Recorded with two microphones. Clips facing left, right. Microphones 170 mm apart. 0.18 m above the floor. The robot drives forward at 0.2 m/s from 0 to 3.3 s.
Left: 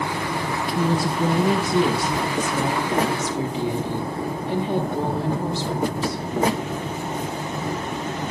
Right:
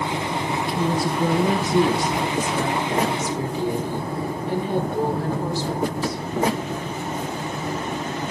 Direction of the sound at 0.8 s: 25° left (ahead or behind).